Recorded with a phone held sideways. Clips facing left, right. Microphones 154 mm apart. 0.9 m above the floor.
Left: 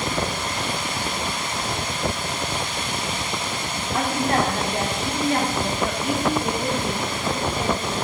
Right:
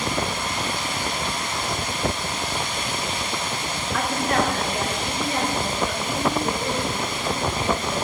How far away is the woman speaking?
About 2.0 m.